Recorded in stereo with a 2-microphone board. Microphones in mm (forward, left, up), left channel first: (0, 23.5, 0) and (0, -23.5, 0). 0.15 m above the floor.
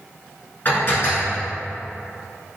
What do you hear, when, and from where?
0.7 s dishes clattering: 40° left (ahead or behind), 1.4 m